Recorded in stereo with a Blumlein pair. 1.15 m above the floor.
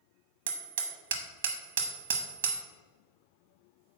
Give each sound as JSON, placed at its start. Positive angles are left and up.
{"t": 0.5, "sound": "hammering", "azimuth_deg": -65, "distance_m": 1.1}